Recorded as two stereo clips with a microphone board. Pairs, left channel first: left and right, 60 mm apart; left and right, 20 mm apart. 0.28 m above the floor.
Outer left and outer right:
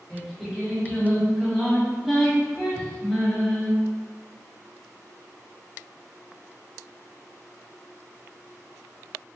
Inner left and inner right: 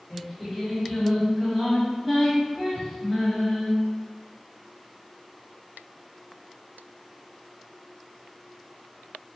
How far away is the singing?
About 1.6 m.